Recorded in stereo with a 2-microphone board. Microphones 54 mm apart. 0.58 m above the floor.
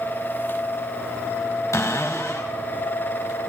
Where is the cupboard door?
65° left (ahead or behind), 2 m.